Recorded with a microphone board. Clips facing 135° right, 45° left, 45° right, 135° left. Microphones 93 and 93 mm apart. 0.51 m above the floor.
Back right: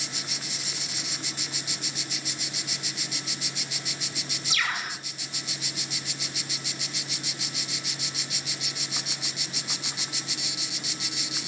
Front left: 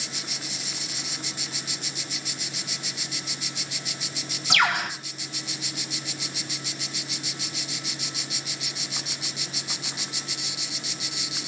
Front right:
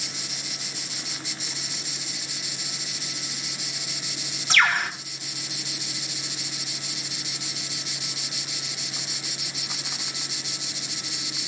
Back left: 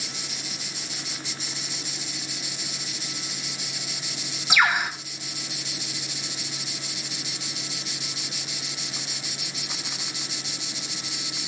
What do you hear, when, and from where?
4.5 s a bird: 55° left, 3 m